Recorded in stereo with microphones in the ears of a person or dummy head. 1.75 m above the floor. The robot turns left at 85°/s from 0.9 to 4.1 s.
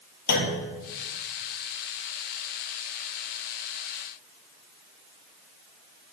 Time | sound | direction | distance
0.3 | a clunk | 55° left (ahead or behind) | 1.7 m